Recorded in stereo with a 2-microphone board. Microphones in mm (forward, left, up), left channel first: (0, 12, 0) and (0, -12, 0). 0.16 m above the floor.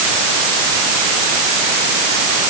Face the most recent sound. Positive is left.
No sound to turn to.